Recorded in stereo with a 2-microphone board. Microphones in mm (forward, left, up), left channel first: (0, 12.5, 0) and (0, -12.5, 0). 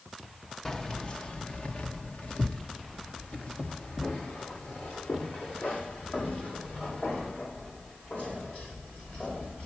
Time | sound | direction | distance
0.7 | keys jangling | 25° left (ahead or behind) | 0.7 m